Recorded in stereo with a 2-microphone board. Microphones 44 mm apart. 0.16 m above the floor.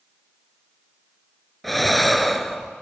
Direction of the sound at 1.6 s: 5° left (ahead or behind).